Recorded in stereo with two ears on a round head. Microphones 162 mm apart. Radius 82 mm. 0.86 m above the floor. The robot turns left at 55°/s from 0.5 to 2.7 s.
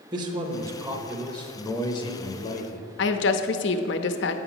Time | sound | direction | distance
0.1 | a man speaking | 145° right | 1.0 m
3.0 | a woman speaking | 70° left (ahead or behind) | 0.8 m